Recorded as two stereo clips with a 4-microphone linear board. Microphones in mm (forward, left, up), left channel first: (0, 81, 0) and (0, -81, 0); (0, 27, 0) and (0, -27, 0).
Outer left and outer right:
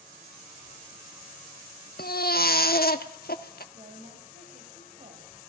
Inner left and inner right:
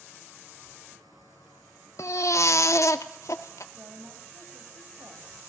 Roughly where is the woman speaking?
Right.